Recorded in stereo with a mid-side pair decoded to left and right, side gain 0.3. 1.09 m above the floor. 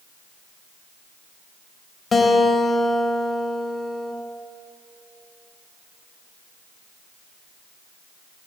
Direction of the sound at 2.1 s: 45° left.